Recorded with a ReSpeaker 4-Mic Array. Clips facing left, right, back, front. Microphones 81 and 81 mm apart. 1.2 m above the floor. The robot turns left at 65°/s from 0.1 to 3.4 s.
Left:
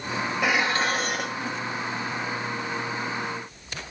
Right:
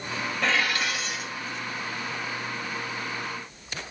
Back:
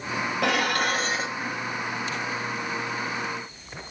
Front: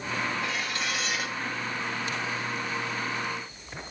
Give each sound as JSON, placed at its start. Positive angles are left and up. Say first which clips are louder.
{"t": 0.4, "sound": "dishes clattering", "louder": "left 2 dB, back 8 dB", "azimuth_deg": 170, "distance_m": 1.1}